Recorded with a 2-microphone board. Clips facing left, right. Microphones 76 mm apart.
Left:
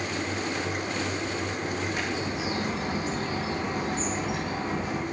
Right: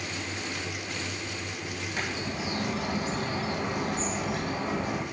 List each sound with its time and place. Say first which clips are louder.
1.9 s a bird: left 3 dB; centre (ahead or behind), 5.5 m